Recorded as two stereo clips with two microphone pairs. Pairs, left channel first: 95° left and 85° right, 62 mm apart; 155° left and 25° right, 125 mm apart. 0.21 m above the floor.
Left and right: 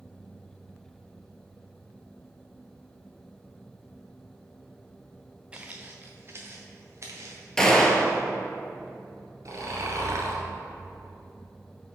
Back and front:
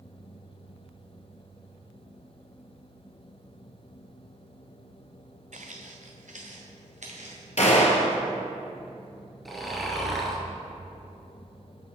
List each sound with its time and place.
5.5 s footsteps: 10° right, 0.8 m; by 8.2 s 45° right, 3 m
7.6 s a gunshot: 175° left, 1.1 m
9.4 s snoring: 115° right, 1.1 m